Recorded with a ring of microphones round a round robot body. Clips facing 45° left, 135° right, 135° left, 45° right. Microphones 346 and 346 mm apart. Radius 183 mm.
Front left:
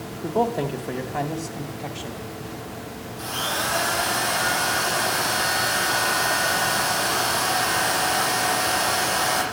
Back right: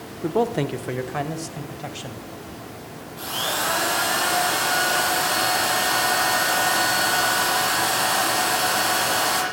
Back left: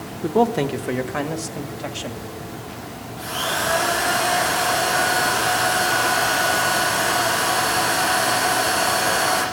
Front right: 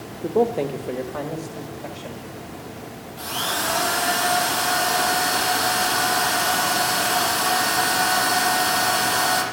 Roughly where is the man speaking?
Behind.